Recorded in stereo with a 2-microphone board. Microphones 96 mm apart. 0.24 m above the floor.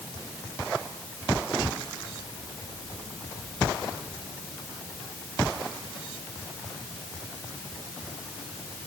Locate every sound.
Only background noise.